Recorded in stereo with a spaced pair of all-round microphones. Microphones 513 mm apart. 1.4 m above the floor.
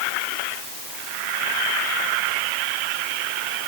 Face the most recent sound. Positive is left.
No sound to turn to.